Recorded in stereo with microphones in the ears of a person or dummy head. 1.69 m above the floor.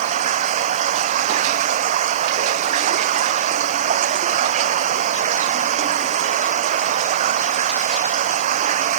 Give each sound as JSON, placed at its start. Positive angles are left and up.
{"t": 0.0, "sound": "running water", "side_deg": -45}